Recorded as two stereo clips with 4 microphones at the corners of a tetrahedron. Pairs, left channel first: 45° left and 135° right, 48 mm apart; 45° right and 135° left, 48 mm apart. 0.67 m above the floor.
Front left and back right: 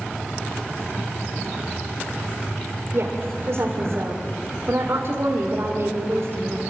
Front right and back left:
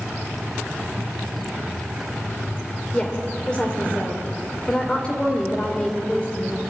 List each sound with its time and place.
2.9 s a woman speaking: 115° right, 2.5 m